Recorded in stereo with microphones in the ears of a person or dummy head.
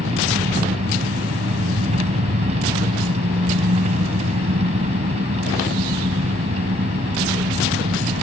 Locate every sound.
0.0 s an engine running: 40° right (ahead or behind)